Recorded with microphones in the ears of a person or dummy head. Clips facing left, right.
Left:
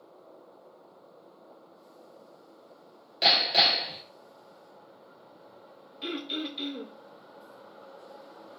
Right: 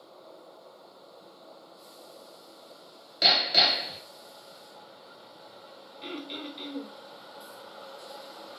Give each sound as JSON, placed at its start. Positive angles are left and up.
{"t": 3.2, "sound": "hammering", "side_deg": -15, "distance_m": 1.3}
{"t": 6.0, "sound": "throat clearing", "side_deg": 15, "distance_m": 0.9}